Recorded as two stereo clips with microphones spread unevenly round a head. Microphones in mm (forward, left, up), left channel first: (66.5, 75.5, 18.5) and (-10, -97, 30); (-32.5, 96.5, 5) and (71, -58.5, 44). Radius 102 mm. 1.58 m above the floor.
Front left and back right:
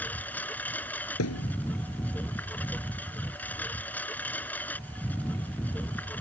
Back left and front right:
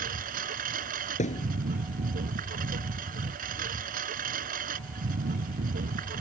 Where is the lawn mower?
15° right.